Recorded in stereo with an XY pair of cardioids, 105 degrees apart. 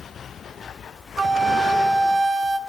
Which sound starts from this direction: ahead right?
A flute, at 1.2 s.